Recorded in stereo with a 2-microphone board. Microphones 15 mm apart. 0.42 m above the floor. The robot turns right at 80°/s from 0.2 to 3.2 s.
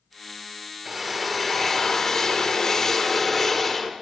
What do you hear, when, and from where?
0.8 s a drill: 15° right (ahead or behind), 1.1 m; by 3.9 s 10° left (ahead or behind), 1.1 m